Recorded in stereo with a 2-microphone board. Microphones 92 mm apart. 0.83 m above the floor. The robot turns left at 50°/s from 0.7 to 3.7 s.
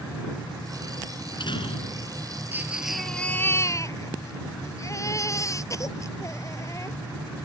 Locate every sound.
1.1 s a door slam: 130° left; by 2.2 s 80° left
2.5 s a baby crying: 155° right; by 7.0 s 145° left